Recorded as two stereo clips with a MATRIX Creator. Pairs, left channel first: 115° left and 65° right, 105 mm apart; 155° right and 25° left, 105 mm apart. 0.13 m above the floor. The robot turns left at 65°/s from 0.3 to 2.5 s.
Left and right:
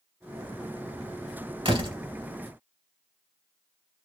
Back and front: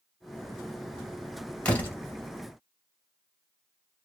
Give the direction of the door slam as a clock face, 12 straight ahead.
3 o'clock.